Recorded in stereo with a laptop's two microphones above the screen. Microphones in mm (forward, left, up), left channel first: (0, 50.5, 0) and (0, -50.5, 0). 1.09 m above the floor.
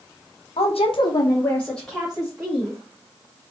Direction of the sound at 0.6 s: 80° left.